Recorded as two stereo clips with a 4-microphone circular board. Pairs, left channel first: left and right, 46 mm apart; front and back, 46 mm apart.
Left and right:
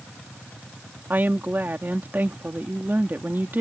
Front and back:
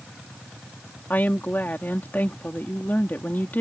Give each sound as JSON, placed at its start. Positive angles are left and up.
{"t": 1.1, "sound": "a woman speaking", "azimuth_deg": -45}